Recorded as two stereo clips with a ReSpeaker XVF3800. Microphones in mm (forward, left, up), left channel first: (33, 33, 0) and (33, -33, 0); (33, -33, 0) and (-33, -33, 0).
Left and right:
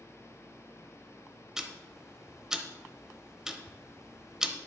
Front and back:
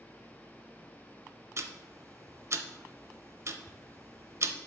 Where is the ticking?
165° right, 0.6 m.